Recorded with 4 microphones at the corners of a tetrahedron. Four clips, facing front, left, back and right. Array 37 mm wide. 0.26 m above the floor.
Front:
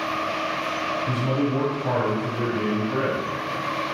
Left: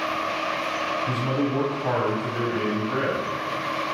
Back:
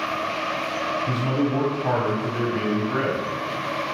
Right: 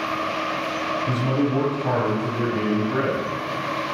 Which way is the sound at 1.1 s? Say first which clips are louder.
Right 2 dB, even; 155° left.